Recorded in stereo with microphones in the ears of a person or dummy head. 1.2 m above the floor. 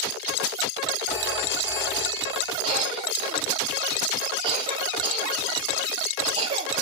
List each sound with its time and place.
1.1 s a phone ringing: 10° right (ahead or behind), 5.5 m
2.6 s a cough: 40° right (ahead or behind), 2.5 m